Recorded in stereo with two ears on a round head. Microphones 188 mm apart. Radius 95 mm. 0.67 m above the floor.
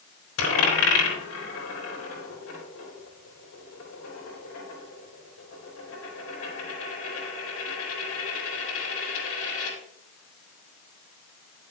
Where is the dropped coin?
70° left (ahead or behind), 3.5 m.